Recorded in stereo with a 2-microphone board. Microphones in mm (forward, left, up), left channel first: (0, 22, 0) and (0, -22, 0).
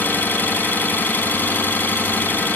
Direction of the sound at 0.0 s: 50° left (ahead or behind).